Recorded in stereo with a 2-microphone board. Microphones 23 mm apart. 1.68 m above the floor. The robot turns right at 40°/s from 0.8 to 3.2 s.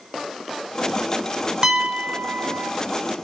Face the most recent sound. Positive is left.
turn(degrees=-80)